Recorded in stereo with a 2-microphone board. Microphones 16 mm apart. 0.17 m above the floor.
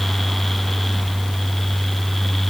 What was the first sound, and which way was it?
Only background noise.